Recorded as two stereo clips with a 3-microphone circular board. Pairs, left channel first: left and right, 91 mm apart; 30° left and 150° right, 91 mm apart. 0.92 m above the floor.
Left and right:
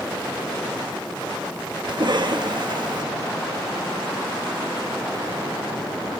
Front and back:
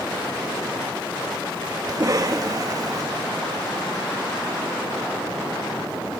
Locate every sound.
1.9 s a cough: 110° right, 1.6 m